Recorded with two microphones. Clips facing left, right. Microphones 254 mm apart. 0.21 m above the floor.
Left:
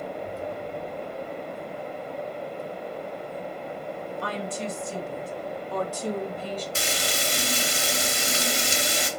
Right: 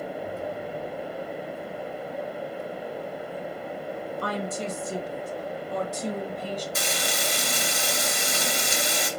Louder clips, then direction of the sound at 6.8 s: Even; 30° left (ahead or behind).